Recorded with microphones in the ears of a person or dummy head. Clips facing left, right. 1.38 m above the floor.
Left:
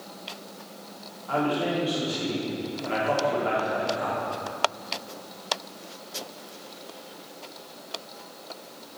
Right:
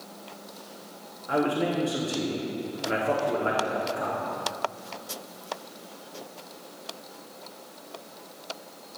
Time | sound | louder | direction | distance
1.3 | a man speaking | even | 35° right (ahead or behind) | 3 m